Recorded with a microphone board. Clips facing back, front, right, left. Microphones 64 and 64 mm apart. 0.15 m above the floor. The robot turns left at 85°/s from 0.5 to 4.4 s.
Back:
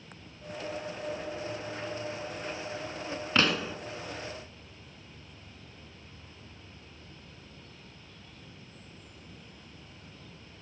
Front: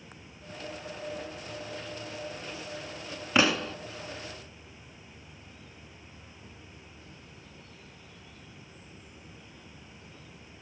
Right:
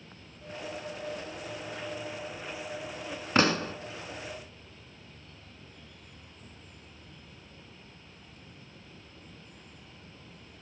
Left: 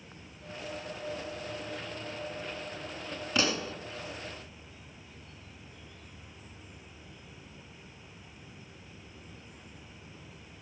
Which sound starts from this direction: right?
A pop, at 3.4 s.